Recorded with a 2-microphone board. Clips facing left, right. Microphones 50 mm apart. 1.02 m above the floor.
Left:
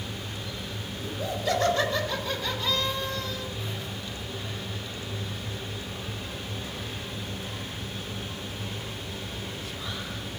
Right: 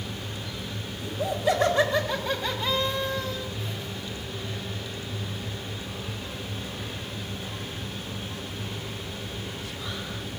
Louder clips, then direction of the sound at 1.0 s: Right 5 dB; 20° right (ahead or behind).